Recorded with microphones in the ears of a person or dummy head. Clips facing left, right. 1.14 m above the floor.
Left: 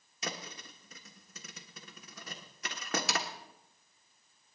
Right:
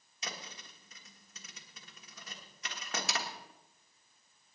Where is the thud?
50° left (ahead or behind), 1.4 m.